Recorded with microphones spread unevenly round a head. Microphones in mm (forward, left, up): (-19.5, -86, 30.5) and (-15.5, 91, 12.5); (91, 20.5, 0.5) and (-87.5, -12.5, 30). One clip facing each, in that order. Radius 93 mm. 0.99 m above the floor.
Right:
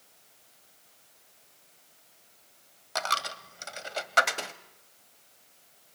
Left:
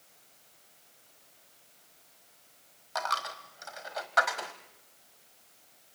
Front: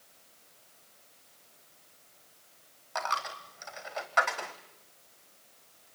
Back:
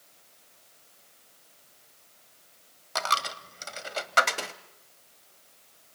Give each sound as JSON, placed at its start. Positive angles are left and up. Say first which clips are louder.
{"t": 3.0, "sound": "a dropped coin", "louder": "right 1 dB, back 3 dB", "azimuth_deg": -140, "distance_m": 1.2}